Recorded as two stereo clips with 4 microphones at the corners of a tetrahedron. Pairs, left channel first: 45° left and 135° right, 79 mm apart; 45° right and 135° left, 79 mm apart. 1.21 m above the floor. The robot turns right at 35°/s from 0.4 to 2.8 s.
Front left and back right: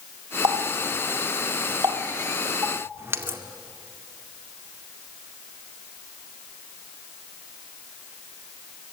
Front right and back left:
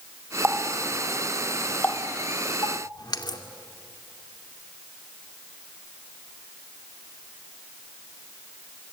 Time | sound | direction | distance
0.4 | a running tap | 160° right | 1.9 m